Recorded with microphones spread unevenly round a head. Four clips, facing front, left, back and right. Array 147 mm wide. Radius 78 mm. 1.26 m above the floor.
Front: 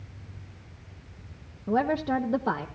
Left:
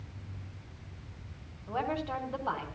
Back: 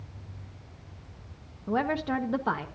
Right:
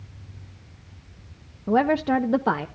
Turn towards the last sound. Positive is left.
turn(degrees=-75)